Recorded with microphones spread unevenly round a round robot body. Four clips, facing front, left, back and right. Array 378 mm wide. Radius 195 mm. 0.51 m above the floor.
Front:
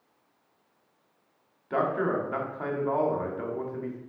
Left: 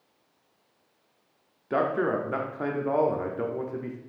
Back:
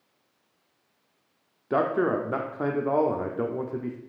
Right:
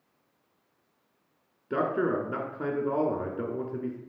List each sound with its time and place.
1.7 s a man speaking: 170° right, 1.2 m